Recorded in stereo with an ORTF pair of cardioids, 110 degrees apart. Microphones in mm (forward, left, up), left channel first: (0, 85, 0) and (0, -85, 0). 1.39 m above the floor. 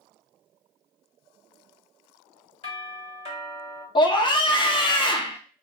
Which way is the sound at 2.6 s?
35° left.